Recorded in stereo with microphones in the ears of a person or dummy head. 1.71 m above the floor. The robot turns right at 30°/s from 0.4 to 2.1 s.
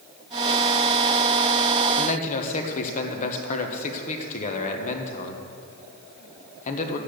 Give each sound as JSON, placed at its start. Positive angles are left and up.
{"t": 2.0, "sound": "a man speaking", "side_deg": 45, "distance_m": 1.3}